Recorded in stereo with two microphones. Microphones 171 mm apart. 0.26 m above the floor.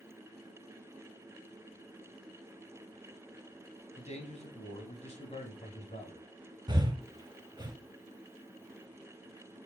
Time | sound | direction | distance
4.0 | a man speaking | 40° left (ahead or behind) | 1.5 m
6.7 | breathing | 25° right (ahead or behind) | 0.7 m